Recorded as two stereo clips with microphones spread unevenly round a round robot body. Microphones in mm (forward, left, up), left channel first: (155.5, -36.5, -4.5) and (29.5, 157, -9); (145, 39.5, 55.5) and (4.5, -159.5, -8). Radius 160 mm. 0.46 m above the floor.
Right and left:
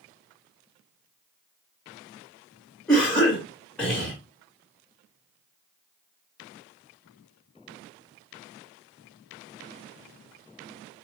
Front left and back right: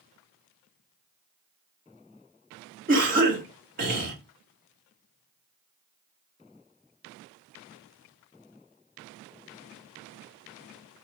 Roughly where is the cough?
Behind right.